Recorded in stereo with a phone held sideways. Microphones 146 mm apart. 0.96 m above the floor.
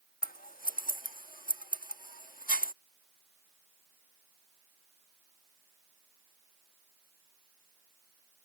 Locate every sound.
0.2 s scissors: 75° left (ahead or behind)